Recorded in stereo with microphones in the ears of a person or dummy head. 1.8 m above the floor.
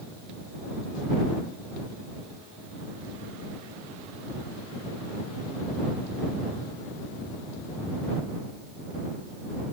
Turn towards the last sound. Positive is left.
No sound to turn to.